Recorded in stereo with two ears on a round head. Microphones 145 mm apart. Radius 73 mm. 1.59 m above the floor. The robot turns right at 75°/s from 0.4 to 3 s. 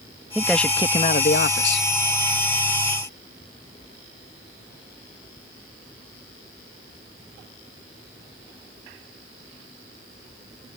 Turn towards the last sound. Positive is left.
turn(degrees=-170)